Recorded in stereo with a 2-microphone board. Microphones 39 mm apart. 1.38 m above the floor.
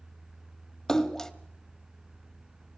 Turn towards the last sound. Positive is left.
turn(degrees=10)  # may be behind; listen again after turning